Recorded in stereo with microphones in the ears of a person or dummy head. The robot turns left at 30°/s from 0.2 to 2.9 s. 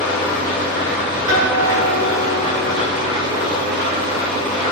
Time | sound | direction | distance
0.0 | an engine running | 20° left | 1.6 m
1.3 | a guitar | 25° right | 1.9 m